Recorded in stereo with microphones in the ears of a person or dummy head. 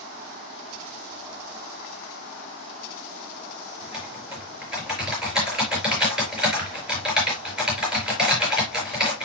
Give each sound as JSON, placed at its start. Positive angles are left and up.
{"t": 3.8, "sound": "typing on a keyboard", "side_deg": 0, "distance_m": 5.5}